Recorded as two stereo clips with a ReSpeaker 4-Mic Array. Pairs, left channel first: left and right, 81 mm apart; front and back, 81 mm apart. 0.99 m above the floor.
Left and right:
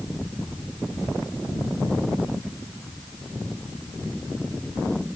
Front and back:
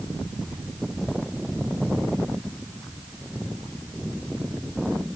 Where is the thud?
No thud in this recording.